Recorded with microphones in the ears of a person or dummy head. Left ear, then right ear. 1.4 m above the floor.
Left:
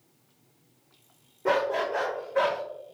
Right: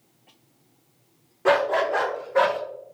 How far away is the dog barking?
About 1.1 m.